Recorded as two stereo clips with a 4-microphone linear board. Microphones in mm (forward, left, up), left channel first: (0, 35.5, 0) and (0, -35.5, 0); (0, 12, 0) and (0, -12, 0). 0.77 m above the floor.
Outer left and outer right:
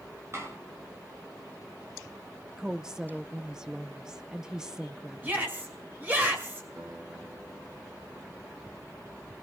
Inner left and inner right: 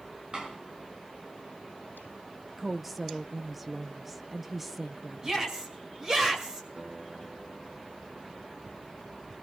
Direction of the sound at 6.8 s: 65° right (ahead or behind).